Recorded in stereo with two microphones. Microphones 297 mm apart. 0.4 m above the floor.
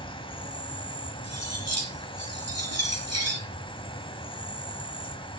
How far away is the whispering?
No whispering in this recording.